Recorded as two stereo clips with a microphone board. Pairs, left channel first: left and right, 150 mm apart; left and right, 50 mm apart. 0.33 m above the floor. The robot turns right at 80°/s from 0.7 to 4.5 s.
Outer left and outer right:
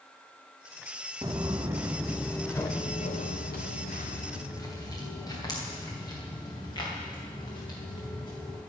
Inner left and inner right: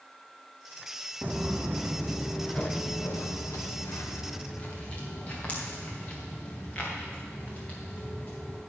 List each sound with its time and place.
1.2 s footsteps: 25° right (ahead or behind), 0.8 m; by 8.6 s 30° left (ahead or behind), 7.5 m